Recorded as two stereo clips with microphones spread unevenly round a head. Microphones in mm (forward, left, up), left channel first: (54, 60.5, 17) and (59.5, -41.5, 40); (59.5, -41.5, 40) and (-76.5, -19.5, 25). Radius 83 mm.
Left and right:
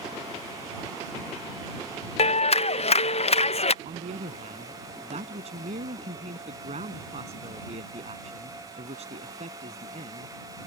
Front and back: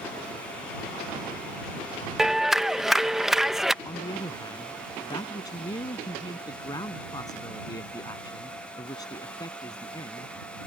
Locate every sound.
2.2 s a clap: 85° left
3.9 s a man speaking: 70° right